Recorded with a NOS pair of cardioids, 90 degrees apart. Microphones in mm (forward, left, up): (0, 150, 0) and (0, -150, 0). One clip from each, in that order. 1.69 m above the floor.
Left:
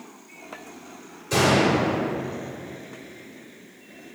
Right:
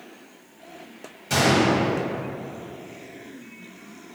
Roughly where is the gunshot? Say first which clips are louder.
Even; ahead right.